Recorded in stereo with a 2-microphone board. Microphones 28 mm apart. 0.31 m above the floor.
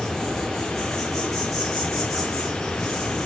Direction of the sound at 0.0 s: Centre (ahead or behind).